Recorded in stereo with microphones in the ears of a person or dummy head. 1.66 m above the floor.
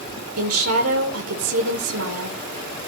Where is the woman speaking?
85° right, 2.5 m.